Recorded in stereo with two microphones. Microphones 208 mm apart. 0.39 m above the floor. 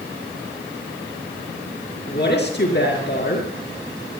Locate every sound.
2.1 s a woman speaking: 50° left (ahead or behind), 5.5 m